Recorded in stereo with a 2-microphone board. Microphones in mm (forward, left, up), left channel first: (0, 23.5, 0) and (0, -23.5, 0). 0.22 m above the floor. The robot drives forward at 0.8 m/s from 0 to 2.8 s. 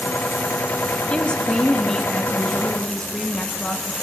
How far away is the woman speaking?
About 1.0 m.